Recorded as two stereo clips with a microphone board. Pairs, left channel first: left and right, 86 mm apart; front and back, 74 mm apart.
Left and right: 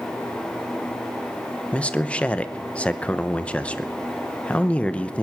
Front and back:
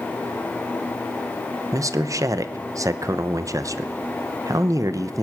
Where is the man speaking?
160° left, 0.8 m.